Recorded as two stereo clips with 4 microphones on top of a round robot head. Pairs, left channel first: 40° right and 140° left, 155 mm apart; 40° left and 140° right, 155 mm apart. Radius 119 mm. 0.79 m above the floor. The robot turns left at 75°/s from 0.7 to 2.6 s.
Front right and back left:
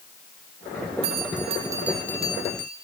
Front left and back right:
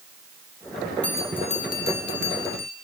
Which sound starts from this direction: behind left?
A bell, at 1.0 s.